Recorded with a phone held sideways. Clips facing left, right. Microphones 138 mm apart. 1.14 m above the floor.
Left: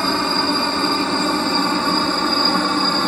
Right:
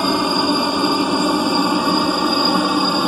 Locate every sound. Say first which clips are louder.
0.0 s a helicopter: right 3 dB; 15° right (ahead or behind); by 3.1 s 10° right (ahead or behind)